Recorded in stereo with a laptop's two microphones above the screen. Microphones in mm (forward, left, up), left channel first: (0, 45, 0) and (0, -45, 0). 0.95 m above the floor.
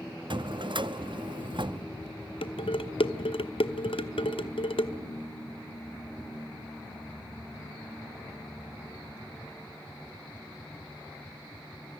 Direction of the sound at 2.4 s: 75° left (ahead or behind).